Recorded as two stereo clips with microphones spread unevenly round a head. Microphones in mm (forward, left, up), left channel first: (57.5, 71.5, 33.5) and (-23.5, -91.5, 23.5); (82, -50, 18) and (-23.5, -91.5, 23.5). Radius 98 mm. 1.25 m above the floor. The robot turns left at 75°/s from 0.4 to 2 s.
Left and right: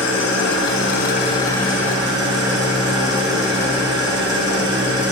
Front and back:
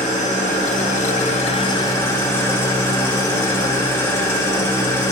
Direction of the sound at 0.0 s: 75° left.